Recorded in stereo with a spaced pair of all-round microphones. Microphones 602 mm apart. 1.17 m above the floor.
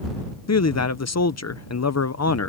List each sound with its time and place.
0.5 s a man speaking: 25° left (ahead or behind)